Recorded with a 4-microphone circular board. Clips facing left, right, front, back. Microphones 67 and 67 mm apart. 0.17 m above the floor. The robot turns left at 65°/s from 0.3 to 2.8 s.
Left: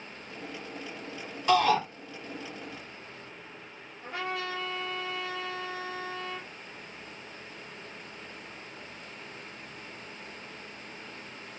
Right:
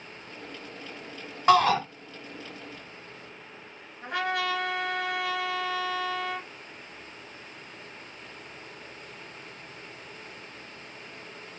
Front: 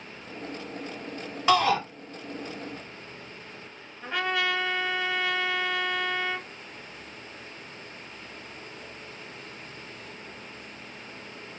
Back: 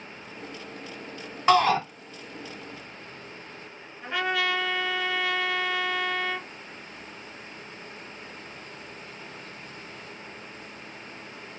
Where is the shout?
110° right, 1.9 m; by 1.8 s 130° right, 1.9 m.